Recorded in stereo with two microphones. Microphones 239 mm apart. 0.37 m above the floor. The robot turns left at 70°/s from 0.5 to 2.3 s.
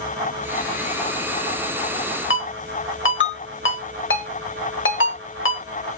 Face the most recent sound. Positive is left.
turn(degrees=55)  # may be behind; listen again after turning